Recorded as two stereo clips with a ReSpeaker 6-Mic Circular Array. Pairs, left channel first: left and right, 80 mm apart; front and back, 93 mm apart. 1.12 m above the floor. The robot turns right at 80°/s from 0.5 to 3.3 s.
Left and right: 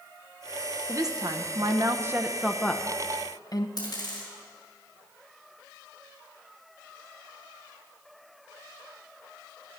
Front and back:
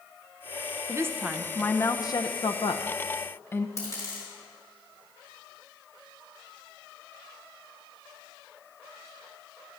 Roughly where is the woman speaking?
Behind right.